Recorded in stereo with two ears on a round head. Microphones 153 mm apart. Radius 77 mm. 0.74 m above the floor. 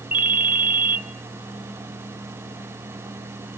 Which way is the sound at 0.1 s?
10° right (ahead or behind).